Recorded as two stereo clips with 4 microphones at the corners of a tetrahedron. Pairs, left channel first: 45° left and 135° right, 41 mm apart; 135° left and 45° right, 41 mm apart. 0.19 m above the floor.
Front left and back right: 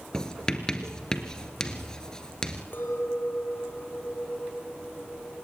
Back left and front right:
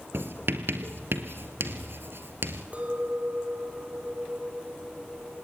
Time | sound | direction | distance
0.1 | writing | 25° right | 1.8 m
2.7 | a clink | 10° left | 3 m